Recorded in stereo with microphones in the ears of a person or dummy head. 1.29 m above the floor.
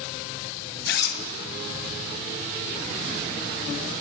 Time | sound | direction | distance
0.9 | a zipper | 55° left (ahead or behind) | 0.7 m